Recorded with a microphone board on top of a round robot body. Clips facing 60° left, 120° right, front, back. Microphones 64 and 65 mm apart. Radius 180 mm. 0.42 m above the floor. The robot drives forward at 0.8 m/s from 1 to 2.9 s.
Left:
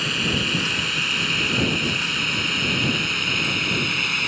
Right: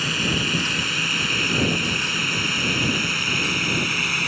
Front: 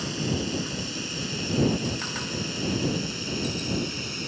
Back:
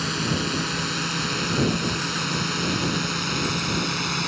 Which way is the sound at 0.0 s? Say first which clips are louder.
Even, back 3 dB; 155° left.